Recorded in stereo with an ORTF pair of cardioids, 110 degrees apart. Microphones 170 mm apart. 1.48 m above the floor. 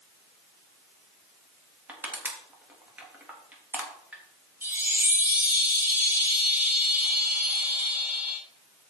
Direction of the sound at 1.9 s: 10° right.